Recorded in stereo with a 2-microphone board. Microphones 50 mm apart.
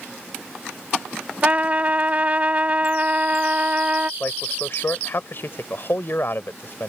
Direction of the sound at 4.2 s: 50° left (ahead or behind).